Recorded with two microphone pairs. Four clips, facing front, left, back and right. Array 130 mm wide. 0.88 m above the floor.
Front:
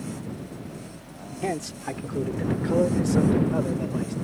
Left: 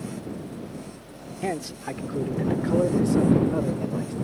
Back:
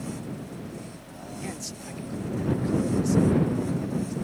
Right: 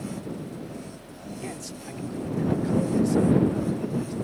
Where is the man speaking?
50° left; by 4.2 s 25° left.